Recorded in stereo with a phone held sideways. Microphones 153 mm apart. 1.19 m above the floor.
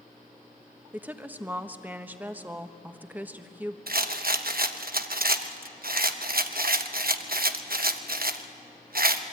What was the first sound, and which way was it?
A woman speaking, 10° right (ahead or behind).